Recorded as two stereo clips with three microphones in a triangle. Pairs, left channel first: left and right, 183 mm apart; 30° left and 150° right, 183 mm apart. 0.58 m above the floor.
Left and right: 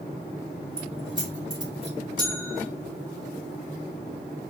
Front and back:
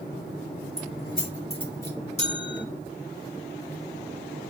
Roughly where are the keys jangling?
Ahead.